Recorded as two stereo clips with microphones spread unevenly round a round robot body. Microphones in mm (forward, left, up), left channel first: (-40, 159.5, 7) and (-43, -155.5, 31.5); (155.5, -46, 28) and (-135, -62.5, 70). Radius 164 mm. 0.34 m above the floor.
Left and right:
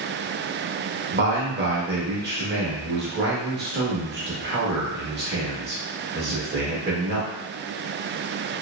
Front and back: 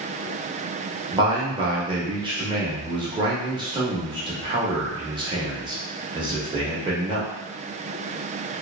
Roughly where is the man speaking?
Right.